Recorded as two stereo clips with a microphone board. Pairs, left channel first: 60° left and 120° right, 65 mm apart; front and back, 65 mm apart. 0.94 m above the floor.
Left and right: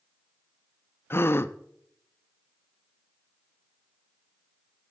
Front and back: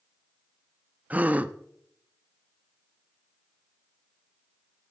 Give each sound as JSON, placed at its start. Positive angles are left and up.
{"t": 1.1, "sound": "a gasp", "azimuth_deg": 115, "distance_m": 0.6}